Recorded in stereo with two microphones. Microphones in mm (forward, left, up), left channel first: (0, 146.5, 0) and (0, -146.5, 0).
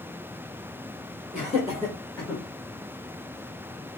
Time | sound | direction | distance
1.3 | laughter | 25° left (ahead or behind) | 1.3 m